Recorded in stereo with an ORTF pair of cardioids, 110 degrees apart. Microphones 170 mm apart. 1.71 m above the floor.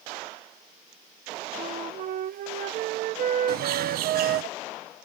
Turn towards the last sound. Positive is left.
turn(degrees=-65)